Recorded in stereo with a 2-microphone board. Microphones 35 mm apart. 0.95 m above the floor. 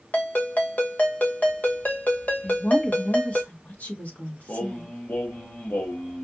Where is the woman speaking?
45° left (ahead or behind), 1.6 m.